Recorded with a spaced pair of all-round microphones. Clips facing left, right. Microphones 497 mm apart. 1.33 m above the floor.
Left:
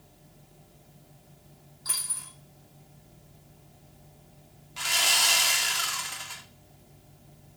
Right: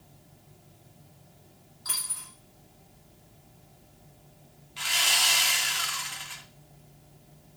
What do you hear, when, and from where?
1.9 s a dropped coin: 25° right (ahead or behind), 1.9 m
4.8 s sawing: 65° left (ahead or behind), 0.6 m